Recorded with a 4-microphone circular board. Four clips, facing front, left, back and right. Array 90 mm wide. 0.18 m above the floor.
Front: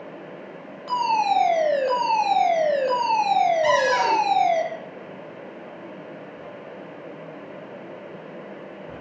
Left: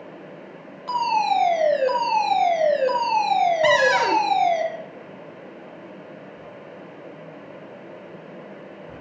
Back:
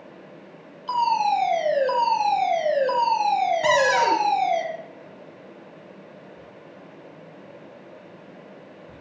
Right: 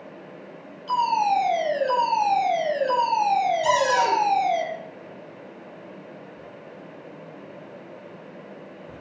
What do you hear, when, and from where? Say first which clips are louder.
0.9 s a fire alarm: even, even; 45° left, 8.5 m
3.6 s a cupboard door: left 2 dB, even; 100° left, 2.5 m